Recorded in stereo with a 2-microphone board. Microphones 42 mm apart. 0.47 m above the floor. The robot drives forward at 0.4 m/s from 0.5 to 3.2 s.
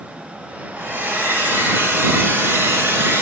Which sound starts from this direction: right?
A hair dryer, at 0.8 s.